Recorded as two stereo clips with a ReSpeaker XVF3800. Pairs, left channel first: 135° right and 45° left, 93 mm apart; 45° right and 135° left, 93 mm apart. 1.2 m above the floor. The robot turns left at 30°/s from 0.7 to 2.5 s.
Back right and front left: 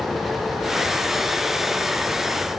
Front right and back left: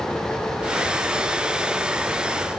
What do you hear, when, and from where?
Only background noise.